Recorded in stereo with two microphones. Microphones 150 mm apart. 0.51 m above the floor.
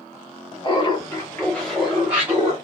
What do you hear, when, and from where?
0.6 s laughter: 35° left (ahead or behind), 1.2 m; by 2.5 s 20° right (ahead or behind), 1.1 m